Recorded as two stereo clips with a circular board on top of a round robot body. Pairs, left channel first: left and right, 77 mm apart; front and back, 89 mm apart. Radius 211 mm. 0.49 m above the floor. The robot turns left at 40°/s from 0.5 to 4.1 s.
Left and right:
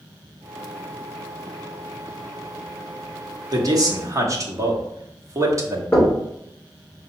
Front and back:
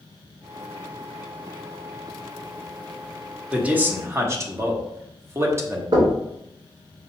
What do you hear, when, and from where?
3.5 s a man speaking: 105° right, 1.3 m; by 5.8 s 125° right, 1.3 m
5.9 s knocking: 160° left, 2.5 m